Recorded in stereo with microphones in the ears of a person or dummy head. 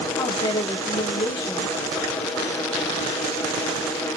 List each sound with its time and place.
0.2 s a woman speaking: 20° left (ahead or behind), 1.6 m